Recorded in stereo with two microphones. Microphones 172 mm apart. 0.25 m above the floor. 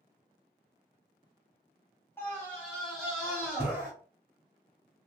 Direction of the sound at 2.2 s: 15° left (ahead or behind).